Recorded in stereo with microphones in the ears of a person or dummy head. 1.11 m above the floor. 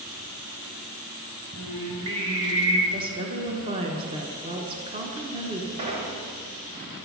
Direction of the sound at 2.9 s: 30° right (ahead or behind).